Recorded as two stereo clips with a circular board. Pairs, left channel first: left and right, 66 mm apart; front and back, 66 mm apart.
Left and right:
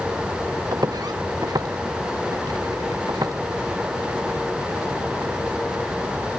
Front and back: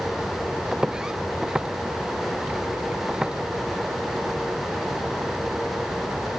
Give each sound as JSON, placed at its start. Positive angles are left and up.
{"t": 0.7, "sound": "footsteps", "azimuth_deg": -100}